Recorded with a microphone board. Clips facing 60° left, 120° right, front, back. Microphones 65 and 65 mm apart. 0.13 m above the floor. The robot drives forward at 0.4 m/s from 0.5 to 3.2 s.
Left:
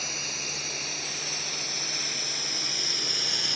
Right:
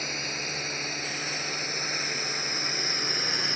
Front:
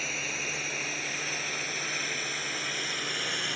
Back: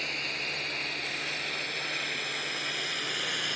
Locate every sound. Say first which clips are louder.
0.0 s a drone: right 3 dB, front 1 dB; 85° right